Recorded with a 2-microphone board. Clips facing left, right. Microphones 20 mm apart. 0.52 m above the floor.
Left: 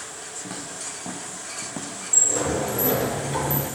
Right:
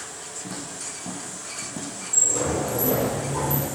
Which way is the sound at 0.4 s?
20° left (ahead or behind).